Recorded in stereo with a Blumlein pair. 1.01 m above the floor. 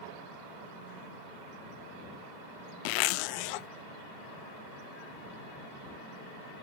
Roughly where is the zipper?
Ahead left.